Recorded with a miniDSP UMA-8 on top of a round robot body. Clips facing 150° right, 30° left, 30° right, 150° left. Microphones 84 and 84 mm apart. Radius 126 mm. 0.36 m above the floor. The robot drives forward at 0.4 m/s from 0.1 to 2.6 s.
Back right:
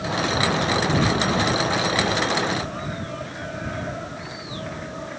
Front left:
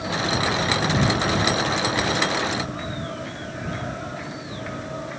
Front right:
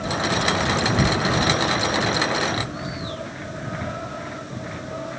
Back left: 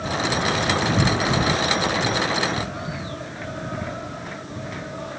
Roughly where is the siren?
I don't hear a siren.